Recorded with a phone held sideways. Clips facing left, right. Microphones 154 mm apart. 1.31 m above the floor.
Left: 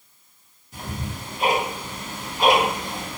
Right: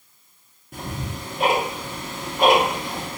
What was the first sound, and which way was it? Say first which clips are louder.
Ticking: right 1 dB; 60° right (ahead or behind).